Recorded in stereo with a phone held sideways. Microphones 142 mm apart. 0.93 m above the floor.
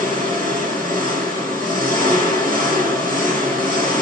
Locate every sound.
0.0 s an engine running: 75° right (ahead or behind), 1.9 m